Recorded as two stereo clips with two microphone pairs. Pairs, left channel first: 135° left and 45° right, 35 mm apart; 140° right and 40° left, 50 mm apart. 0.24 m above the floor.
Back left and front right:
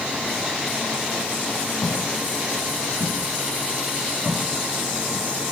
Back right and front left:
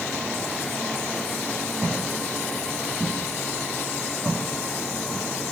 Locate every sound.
1.8 s footsteps: 150° left, 6.5 m; by 5.3 s 170° left, 5 m